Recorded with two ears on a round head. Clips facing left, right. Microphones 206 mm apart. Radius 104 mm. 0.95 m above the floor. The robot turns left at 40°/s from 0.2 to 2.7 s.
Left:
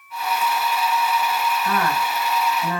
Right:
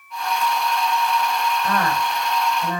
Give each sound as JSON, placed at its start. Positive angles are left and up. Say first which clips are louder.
{"t": 1.6, "sound": "a woman speaking", "louder": "even", "azimuth_deg": -135, "distance_m": 5.5}